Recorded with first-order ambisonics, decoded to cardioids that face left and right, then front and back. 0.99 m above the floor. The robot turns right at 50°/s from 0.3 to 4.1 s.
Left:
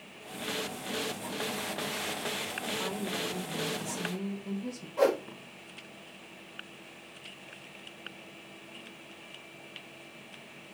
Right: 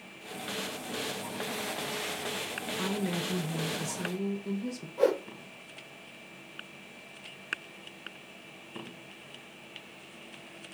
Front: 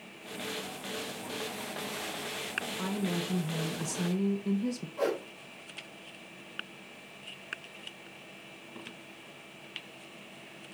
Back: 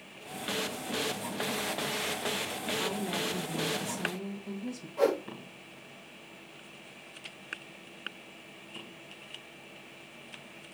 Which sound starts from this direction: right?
A woman speaking, at 2.8 s.